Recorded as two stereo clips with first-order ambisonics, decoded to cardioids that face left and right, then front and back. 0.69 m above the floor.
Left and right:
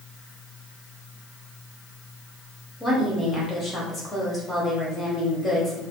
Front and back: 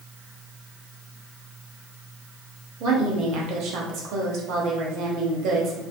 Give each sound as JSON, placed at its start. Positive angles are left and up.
{"t": 2.8, "sound": "a woman speaking", "azimuth_deg": 170, "distance_m": 0.8}